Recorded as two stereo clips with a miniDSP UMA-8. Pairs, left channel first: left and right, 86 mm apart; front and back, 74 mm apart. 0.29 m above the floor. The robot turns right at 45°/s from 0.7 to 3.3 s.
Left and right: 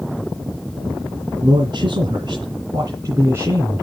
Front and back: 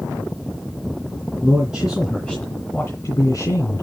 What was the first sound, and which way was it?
A man speaking, 120° right.